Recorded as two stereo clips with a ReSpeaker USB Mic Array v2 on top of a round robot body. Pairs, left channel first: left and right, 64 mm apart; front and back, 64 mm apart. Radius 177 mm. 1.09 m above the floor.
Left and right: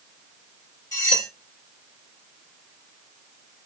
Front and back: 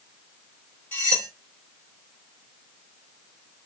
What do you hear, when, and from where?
0.9 s cutlery clinking: 60° left, 0.6 m